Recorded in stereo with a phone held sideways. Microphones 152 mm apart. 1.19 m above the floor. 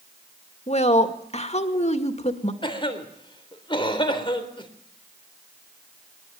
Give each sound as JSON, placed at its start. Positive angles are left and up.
{"t": 0.7, "sound": "a woman speaking", "side_deg": 45, "distance_m": 2.0}
{"t": 2.6, "sound": "a cough", "side_deg": 35, "distance_m": 3.5}